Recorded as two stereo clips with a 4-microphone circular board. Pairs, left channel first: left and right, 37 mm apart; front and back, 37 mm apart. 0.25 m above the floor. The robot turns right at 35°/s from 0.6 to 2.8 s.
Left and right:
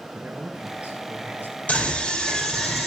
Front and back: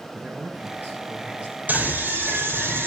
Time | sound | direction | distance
0.1 | a man speaking | 160° right | 4.5 m
1.7 | a scream | 140° left | 5.5 m